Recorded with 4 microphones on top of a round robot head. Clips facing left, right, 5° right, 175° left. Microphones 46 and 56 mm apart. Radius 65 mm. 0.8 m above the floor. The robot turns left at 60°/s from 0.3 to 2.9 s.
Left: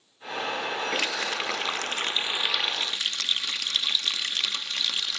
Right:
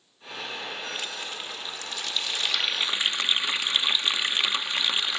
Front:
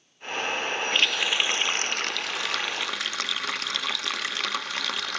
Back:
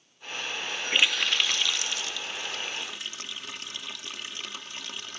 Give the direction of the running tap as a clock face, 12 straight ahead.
9 o'clock.